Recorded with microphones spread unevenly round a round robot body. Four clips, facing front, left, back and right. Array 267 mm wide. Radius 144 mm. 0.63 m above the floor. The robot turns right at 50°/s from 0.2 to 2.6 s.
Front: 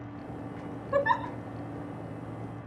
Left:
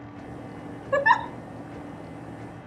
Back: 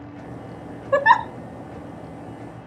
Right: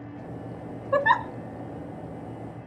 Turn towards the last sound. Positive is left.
turn(degrees=-110)